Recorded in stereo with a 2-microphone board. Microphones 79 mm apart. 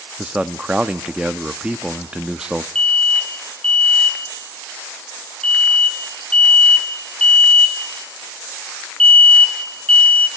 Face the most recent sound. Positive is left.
turn(degrees=15)  # may be behind; listen again after turning